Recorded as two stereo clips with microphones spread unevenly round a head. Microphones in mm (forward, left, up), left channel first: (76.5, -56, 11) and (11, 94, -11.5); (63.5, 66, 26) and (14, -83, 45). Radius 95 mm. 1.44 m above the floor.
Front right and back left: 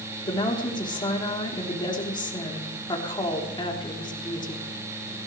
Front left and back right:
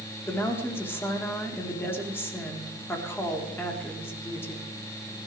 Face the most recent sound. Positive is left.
turn(degrees=-5)